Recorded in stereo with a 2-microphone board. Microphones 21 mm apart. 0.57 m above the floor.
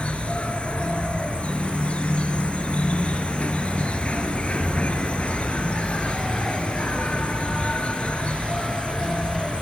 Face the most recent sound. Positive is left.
turn(degrees=75)  # may be behind; listen again after turning